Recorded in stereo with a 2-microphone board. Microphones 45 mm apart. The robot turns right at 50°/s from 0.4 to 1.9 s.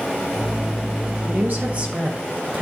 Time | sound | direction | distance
1.2 | a woman speaking | 60° right | 1.4 m